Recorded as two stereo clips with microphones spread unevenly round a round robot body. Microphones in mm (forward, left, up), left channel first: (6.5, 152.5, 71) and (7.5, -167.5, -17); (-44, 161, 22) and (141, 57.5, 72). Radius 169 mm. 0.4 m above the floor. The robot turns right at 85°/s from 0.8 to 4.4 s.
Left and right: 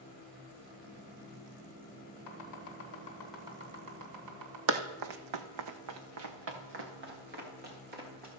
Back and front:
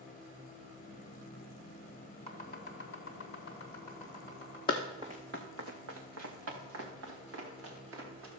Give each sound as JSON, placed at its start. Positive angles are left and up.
{"t": 2.3, "sound": "chopping", "azimuth_deg": 95, "distance_m": 2.5}
{"t": 4.7, "sound": "running footsteps", "azimuth_deg": -130, "distance_m": 1.0}